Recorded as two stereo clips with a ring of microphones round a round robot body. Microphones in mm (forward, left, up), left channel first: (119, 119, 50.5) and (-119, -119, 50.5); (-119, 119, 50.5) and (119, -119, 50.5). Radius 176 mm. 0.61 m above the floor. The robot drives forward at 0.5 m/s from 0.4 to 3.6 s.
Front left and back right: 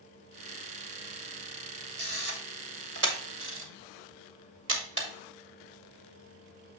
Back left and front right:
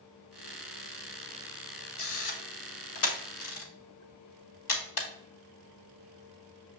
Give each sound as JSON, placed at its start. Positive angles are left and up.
{"t": 2.0, "sound": "a camera shutter", "azimuth_deg": 175, "distance_m": 1.8}